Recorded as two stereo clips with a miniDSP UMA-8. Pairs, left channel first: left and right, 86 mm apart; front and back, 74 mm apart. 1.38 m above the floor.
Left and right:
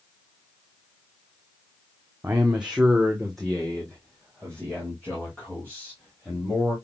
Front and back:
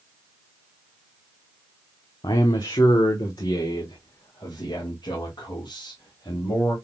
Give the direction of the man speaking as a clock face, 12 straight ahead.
1 o'clock.